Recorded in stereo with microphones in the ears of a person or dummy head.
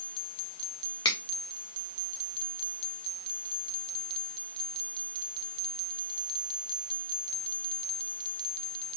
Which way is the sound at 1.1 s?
25° left (ahead or behind).